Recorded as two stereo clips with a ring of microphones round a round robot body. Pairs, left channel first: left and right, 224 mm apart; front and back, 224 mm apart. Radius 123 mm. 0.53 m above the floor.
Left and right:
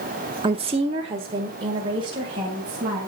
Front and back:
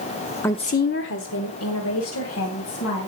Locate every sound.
0.4 s a woman speaking: 70° right, 0.6 m; by 3.1 s 20° right, 3.5 m